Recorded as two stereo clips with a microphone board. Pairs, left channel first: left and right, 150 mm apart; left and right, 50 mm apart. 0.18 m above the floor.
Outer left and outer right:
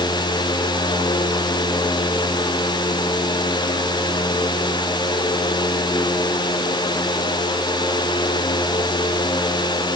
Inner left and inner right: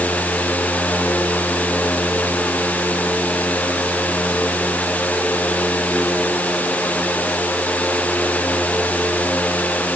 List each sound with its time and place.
Only background noise.